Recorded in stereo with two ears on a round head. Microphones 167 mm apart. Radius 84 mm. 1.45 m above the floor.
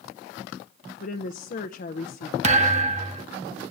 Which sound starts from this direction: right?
A thud, at 2.4 s.